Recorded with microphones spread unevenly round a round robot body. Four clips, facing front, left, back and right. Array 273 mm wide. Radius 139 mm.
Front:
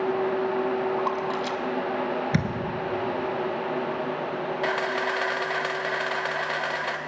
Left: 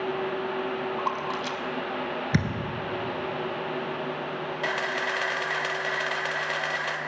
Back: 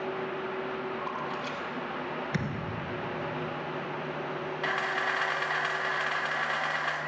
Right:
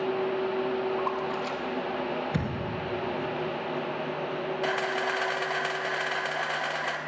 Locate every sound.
1.0 s a splash: 30° left, 1.1 m
2.3 s a thud: 60° left, 1.7 m
4.6 s a camera shutter: 5° right, 1.4 m